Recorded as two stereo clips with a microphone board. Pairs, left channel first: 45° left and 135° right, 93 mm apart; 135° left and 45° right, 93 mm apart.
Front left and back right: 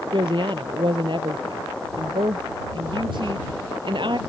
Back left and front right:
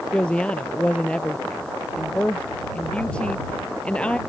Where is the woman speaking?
150° right.